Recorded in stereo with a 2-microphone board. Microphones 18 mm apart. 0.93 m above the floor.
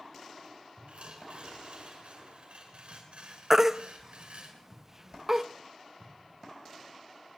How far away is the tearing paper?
About 5.5 m.